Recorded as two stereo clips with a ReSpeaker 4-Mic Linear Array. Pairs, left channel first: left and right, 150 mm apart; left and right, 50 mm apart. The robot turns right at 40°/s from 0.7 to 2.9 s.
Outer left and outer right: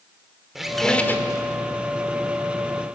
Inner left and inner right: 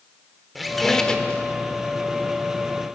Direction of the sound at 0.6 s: Centre (ahead or behind).